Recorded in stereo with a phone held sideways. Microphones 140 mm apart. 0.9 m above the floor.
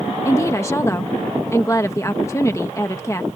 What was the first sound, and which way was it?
A woman speaking, 20° left (ahead or behind).